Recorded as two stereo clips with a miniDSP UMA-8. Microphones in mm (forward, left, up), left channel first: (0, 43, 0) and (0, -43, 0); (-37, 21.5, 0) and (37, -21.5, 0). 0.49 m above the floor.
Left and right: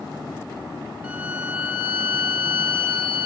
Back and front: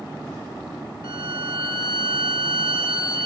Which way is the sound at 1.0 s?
20° right.